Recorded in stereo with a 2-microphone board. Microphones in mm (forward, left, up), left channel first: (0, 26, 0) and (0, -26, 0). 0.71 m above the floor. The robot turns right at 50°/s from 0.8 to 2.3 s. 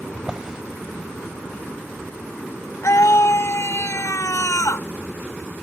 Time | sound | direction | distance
0.1 | a drawer | 10° right (ahead or behind) | ?
2.8 | a scream | 75° left (ahead or behind) | ?